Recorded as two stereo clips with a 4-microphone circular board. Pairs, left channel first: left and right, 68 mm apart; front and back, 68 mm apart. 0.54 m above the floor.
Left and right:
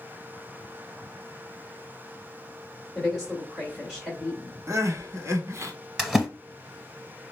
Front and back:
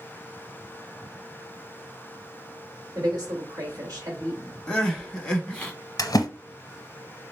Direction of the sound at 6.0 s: 5° right.